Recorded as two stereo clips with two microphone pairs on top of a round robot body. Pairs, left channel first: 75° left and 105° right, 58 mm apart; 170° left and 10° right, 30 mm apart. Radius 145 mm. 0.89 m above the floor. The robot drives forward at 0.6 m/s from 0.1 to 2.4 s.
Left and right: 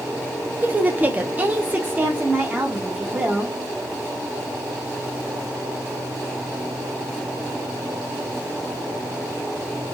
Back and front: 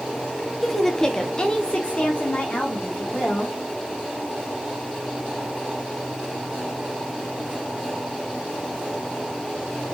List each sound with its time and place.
0.6 s a woman speaking: 100° right, 0.9 m; by 3.6 s 155° right, 1.5 m